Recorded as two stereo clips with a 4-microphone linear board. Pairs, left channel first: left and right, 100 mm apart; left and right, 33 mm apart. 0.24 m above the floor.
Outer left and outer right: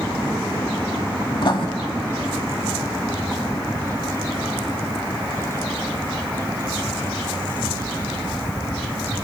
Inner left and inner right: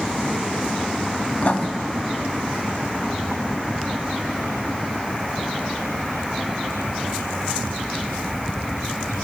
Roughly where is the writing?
Left.